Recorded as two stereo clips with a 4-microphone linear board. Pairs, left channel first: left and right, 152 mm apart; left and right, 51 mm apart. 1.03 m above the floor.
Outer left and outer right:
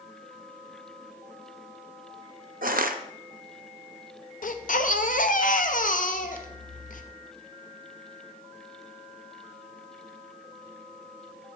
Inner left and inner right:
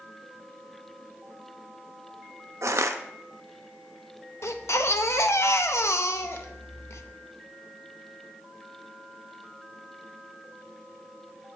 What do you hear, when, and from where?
2.6 s crushing: 70° right (ahead or behind), 0.5 m
4.4 s a baby crying: 65° left (ahead or behind), 0.6 m